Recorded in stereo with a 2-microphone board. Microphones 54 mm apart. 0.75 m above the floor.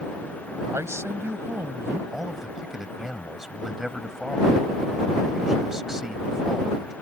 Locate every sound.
0.7 s a man speaking: 60° right (ahead or behind)
2.1 s a man speaking: 10° right (ahead or behind)